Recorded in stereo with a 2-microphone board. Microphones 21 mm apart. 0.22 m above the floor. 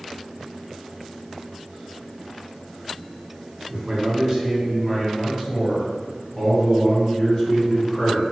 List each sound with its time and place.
3.7 s a man speaking: 35° right (ahead or behind), 1.7 m; by 8.2 s 30° left (ahead or behind), 2 m